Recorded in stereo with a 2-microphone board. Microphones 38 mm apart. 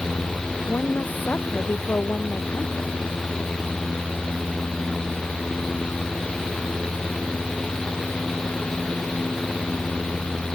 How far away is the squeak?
I don't hear a squeak.